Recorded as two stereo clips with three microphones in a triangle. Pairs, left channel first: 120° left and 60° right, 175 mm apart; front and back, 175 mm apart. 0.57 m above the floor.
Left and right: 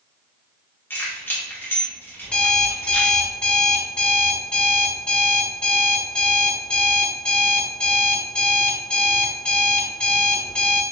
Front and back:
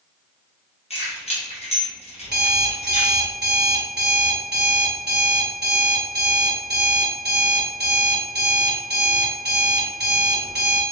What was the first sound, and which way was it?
Keys jangling, 45° left.